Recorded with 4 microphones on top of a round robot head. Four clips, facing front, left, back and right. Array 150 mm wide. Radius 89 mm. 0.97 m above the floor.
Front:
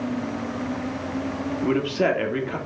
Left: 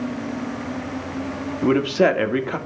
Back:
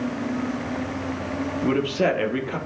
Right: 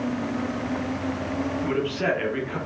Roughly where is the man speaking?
Left.